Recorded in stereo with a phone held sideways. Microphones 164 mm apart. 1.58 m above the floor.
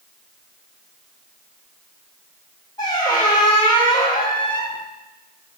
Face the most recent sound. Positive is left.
turn(degrees=25)  # may be behind; listen again after turning